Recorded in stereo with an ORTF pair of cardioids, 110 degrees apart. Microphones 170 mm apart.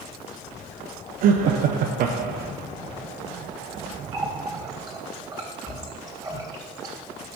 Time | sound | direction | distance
1.2 | laughter | 65° right | 0.9 m
4.1 | a running tap | 20° right | 3 m